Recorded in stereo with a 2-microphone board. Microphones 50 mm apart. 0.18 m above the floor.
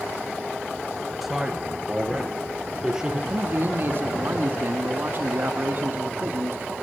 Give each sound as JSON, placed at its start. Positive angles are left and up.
{"t": 1.2, "sound": "a man speaking", "side_deg": -5, "distance_m": 3.0}
{"t": 3.3, "sound": "a man speaking", "side_deg": -45, "distance_m": 1.6}